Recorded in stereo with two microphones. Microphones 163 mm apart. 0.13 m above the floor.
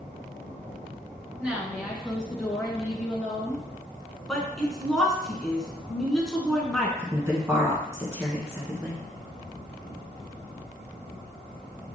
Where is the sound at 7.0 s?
15° right (ahead or behind), 1.1 m.